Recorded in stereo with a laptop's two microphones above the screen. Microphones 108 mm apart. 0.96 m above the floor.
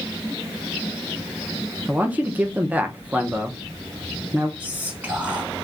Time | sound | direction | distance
1.9 | a man speaking | 15° right (ahead or behind) | 0.5 m
4.6 | whispering | 15° right (ahead or behind) | 1.5 m